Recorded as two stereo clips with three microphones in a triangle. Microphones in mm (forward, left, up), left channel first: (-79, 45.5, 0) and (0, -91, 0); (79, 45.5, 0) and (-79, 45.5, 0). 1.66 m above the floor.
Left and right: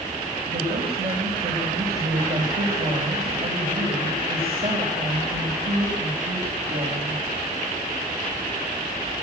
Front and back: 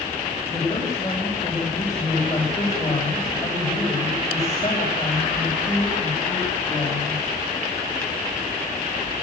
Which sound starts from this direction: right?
A woman speaking, at 0.5 s.